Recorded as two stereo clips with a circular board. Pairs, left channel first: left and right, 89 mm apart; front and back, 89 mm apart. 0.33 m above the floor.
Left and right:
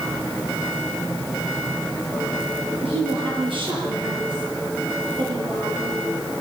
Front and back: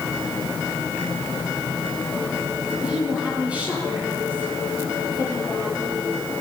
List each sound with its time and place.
2.8 s a woman speaking: 100° right, 9.5 m; by 6.0 s 120° right, 10.5 m